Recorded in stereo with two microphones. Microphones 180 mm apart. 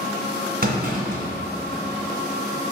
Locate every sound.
0.6 s a clunk: 55° right (ahead or behind), 2 m